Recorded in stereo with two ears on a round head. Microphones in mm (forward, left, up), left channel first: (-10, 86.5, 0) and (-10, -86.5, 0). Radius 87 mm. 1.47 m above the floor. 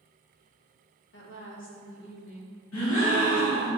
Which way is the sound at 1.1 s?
70° left (ahead or behind).